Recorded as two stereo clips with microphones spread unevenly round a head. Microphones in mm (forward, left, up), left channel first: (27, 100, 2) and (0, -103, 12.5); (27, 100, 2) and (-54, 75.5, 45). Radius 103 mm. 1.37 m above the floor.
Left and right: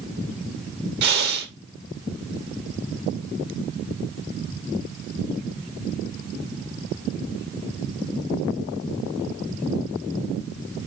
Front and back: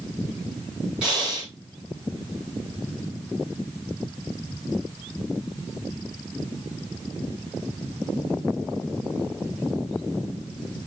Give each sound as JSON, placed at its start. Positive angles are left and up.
{"t": 1.0, "sound": "breathing", "azimuth_deg": -110, "distance_m": 1.1}